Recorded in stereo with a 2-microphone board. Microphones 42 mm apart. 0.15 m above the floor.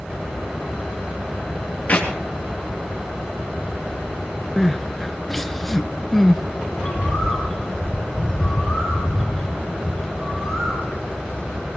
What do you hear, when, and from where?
1.9 s a clap: 40° left (ahead or behind), 3 m
4.6 s crying: 5° left (ahead or behind), 0.7 m
6.7 s a bird: 5° left (ahead or behind), 5 m